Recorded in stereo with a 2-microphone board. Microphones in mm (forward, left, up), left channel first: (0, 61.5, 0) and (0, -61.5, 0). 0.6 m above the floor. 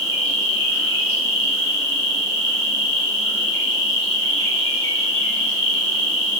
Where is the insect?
40° right (ahead or behind), 1.4 m.